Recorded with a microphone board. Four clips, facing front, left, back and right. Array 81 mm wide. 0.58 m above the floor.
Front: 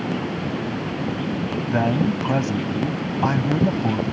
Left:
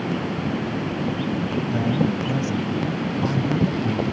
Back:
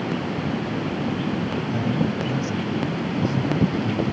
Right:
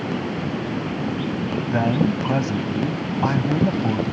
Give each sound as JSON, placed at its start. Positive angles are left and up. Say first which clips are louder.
{"t": 1.7, "sound": "a man speaking", "louder": "right 3 dB, front 5 dB", "azimuth_deg": -35}